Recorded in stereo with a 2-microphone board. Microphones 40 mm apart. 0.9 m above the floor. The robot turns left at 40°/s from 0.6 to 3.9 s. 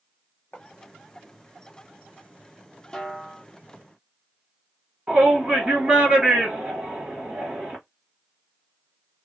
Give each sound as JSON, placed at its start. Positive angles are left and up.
{"t": 0.5, "sound": "writing", "side_deg": 45, "distance_m": 1.3}
{"t": 2.9, "sound": "a snare drum", "side_deg": 15, "distance_m": 0.7}
{"t": 5.1, "sound": "a shout", "side_deg": -25, "distance_m": 1.5}